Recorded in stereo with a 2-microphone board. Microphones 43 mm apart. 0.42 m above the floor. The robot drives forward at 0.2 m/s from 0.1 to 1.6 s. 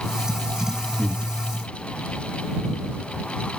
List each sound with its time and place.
1.0 s breathing: 35° right (ahead or behind), 1.5 m